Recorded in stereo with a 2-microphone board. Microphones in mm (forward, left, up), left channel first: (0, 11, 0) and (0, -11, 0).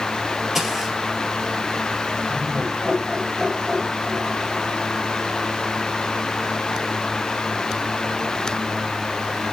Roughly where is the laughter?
Right.